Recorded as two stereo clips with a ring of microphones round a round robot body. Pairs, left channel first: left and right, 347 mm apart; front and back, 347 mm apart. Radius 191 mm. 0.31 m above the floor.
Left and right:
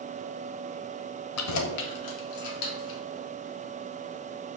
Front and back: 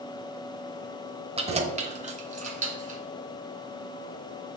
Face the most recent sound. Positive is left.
turn(degrees=110)